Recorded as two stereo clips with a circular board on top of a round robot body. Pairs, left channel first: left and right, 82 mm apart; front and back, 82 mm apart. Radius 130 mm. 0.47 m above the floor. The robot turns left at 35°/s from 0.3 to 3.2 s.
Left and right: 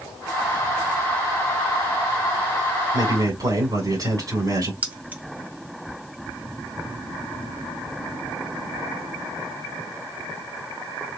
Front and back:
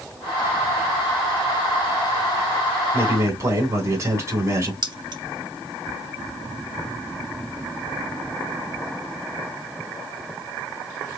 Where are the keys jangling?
160° right, 1.3 m.